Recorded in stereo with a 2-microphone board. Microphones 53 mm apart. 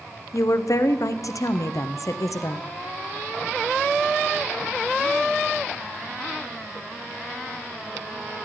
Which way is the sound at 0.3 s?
80° left.